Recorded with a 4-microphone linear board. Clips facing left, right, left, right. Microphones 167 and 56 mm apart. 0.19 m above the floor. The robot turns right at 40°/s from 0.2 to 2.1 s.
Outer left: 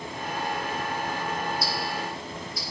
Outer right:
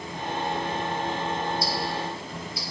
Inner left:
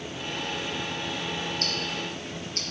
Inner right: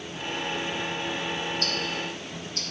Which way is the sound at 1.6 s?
65° left (ahead or behind).